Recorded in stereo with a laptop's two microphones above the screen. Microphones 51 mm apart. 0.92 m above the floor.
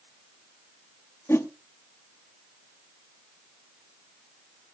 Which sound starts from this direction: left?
A whoosh, at 1.3 s.